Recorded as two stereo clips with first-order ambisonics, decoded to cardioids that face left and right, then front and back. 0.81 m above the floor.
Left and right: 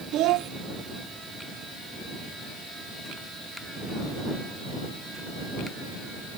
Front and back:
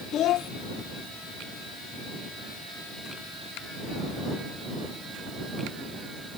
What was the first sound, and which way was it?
A child speaking, 50° right.